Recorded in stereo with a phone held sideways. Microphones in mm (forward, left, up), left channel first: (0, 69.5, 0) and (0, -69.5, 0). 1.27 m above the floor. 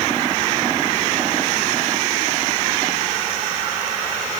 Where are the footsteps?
I don't hear footsteps.